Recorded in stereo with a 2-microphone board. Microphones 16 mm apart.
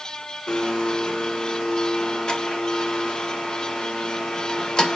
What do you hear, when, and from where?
0.5 s a blender: 60° left (ahead or behind), 1.7 m